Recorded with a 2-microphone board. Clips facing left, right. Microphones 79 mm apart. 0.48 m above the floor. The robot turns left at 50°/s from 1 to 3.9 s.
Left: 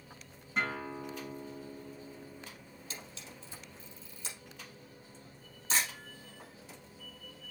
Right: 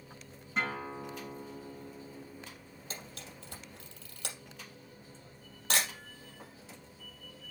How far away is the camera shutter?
About 4 m.